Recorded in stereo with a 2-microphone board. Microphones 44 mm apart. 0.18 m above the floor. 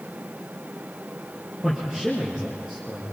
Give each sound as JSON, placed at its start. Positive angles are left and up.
{"t": 1.6, "sound": "a man speaking", "side_deg": -5, "distance_m": 4.5}